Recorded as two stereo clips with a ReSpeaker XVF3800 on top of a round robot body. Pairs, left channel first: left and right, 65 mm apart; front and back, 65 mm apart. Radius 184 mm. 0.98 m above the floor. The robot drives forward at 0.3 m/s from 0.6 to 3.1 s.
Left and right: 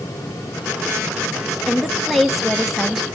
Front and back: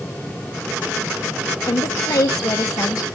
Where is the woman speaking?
Straight ahead, 1.2 m; by 3.0 s 5° right, 0.9 m.